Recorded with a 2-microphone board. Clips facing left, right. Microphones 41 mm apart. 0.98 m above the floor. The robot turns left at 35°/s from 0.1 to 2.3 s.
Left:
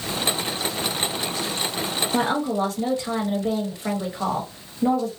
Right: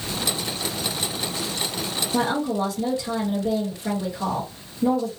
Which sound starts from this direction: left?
A woman speaking, at 2.1 s.